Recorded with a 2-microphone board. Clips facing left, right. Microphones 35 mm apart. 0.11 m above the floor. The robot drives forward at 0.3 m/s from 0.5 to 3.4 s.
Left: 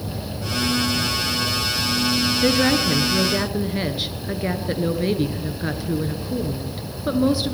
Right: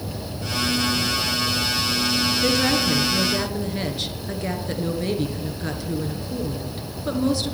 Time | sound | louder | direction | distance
2.4 | a woman speaking | left 3 dB | 20° left (ahead or behind) | 1.1 m